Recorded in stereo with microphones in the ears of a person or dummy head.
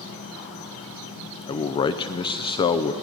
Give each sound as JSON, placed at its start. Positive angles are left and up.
{"t": 0.0, "sound": "an insect", "side_deg": 60, "distance_m": 2.0}
{"t": 1.5, "sound": "a man speaking", "side_deg": 35, "distance_m": 0.5}